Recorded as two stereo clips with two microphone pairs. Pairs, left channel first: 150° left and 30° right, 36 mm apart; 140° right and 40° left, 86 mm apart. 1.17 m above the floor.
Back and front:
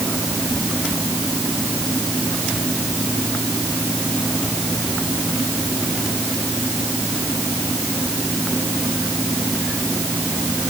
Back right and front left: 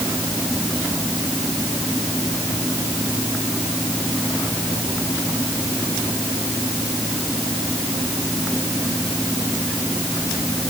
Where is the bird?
I don't hear a bird.